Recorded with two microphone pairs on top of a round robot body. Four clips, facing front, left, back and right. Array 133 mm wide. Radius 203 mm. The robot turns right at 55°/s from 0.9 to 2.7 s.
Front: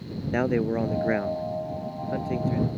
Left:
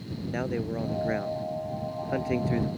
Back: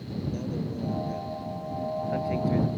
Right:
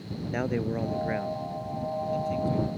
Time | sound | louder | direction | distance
0.3 | a man speaking | right 2 dB, front 13 dB | straight ahead | ?